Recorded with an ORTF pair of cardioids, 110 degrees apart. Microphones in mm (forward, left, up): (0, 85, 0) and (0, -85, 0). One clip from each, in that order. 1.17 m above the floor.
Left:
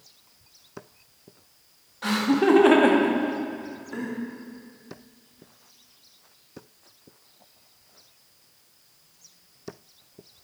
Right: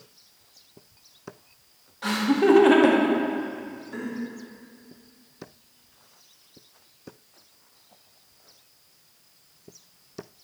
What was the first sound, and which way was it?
Laughter, 5° left.